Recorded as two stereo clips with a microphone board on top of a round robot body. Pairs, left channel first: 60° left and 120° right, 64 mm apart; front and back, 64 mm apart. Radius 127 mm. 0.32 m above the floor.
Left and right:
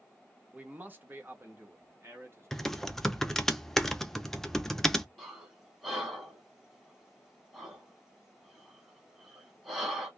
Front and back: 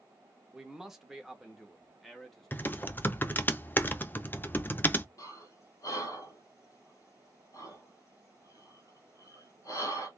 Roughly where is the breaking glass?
No breaking glass in this recording.